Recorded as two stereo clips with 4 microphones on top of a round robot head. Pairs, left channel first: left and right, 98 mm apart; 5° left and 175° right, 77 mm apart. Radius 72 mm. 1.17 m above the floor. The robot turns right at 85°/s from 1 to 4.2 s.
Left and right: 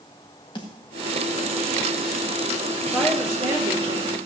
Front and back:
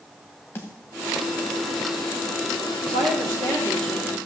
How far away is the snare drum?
About 1.4 m.